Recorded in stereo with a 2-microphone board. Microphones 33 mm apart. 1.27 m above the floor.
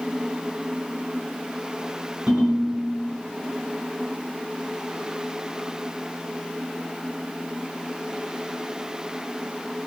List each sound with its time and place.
2.3 s a ringtone: 65° right (ahead or behind), 1.8 m